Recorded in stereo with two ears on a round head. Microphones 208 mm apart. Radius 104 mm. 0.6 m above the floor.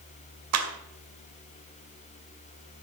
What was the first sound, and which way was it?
A clap, 75° right (ahead or behind).